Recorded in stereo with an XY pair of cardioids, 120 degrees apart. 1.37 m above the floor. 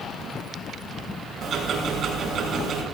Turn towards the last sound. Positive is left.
turn(degrees=-55)